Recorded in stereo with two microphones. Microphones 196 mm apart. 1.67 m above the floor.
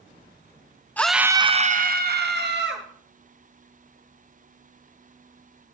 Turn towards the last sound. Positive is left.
turn(degrees=-65)  # may be behind; listen again after turning